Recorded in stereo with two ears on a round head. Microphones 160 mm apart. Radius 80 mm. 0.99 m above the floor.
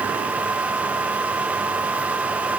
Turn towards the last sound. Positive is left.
No sound to turn to.